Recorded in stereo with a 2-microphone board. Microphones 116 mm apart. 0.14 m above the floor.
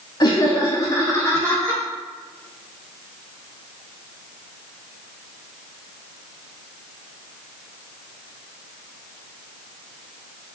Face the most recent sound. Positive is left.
turn(degrees=20)  # may be behind; listen again after turning